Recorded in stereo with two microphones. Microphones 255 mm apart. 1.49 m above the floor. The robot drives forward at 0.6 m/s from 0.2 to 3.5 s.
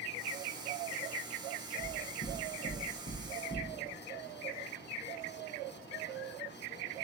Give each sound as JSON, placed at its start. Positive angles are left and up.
{"t": 1.8, "sound": "knocking", "side_deg": 40, "distance_m": 0.8}